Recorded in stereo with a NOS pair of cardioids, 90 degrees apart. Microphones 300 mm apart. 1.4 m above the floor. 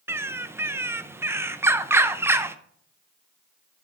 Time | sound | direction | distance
0.1 | a bird | 10° right | 0.5 m